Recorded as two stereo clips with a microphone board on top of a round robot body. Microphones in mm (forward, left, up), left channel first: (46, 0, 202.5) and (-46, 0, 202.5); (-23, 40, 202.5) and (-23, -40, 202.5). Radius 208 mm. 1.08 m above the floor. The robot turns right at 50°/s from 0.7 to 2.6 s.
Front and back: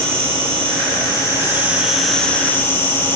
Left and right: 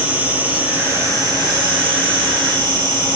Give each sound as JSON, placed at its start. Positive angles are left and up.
{"t": 0.0, "sound": "an insect", "azimuth_deg": -160, "distance_m": 1.5}